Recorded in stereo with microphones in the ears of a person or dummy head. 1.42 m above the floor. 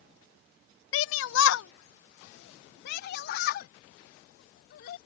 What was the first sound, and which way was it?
A shout, 80° left.